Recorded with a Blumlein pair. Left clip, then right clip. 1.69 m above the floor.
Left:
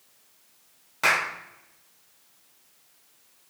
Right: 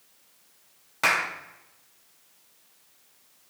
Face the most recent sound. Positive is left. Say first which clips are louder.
# left 1 dB
turn(degrees=-5)